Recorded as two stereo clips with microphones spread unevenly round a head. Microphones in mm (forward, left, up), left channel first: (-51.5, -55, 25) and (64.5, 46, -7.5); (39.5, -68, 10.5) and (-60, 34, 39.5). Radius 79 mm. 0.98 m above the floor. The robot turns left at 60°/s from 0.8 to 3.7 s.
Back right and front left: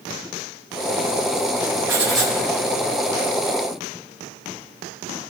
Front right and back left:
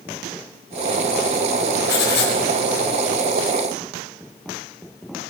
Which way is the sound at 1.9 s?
35° right.